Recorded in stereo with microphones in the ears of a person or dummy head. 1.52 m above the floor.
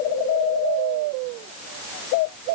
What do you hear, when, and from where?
Only background noise.